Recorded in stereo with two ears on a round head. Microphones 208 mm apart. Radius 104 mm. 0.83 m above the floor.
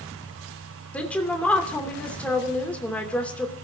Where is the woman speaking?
5° left (ahead or behind), 3 m.